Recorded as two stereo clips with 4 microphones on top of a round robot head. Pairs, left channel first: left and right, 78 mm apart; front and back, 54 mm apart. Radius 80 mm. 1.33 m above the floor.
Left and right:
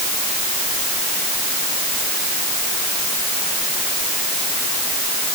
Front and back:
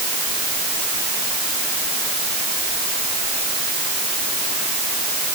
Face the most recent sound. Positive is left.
No sound to turn to.